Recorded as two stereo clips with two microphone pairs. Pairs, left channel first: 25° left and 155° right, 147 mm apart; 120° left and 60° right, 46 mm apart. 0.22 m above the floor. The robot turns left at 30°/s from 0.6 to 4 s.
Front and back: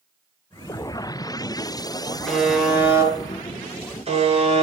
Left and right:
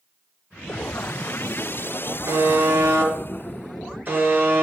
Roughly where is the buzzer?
Ahead right.